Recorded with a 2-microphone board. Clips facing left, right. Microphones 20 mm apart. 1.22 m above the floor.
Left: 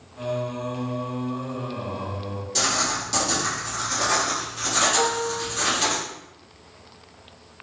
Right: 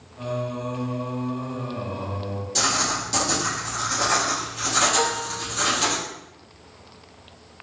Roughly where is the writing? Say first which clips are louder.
Right 1 dB; centre.